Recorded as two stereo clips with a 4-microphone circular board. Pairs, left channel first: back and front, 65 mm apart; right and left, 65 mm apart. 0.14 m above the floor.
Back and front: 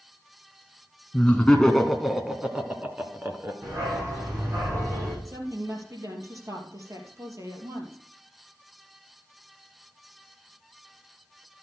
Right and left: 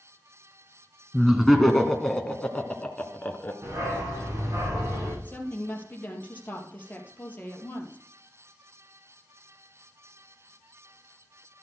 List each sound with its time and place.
1.1 s laughter: 170° left, 1.2 m; by 3.5 s 30° right, 1.5 m
3.6 s a dog barking: 45° left, 6.5 m
5.2 s a woman speaking: 30° right, 3 m